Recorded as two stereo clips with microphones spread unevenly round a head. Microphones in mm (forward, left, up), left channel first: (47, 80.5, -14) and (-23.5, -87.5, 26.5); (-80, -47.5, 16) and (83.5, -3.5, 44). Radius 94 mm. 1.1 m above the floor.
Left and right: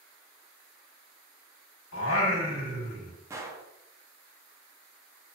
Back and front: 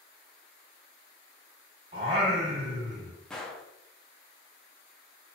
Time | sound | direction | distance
1.9 | singing | 65° left | 1.1 m
3.3 | a gunshot | 70° right | 0.5 m